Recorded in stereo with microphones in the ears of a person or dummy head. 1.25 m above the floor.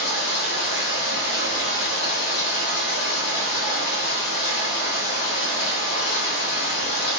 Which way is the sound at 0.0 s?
70° left (ahead or behind).